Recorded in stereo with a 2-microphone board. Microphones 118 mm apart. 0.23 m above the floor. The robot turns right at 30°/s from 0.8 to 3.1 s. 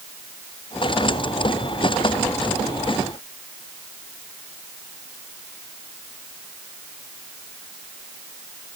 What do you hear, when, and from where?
Only background noise.